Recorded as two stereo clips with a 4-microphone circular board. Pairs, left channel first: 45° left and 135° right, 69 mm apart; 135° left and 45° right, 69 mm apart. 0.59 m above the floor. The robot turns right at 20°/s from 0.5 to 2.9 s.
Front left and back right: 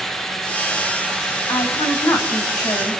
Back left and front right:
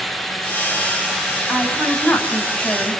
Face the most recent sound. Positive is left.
turn(degrees=65)